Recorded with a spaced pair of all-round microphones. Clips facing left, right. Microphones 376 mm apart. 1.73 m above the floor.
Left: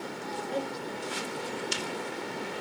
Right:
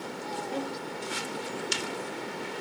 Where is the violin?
15° right (ahead or behind), 0.7 m.